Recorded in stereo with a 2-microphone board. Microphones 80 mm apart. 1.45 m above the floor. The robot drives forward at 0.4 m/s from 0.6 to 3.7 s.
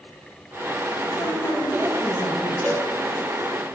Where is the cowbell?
25° left (ahead or behind), 1.0 m.